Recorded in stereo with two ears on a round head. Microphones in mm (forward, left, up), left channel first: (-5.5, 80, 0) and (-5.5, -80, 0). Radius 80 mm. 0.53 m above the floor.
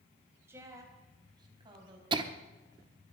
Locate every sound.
0.5 s a woman speaking: 15° right (ahead or behind), 3 m; by 2.0 s 30° right (ahead or behind), 4 m
2.1 s laughter: 25° right (ahead or behind), 0.8 m